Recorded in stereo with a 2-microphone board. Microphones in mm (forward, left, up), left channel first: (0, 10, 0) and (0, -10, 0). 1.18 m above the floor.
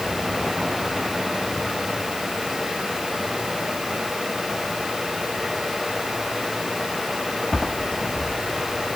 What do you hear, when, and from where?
Only background noise.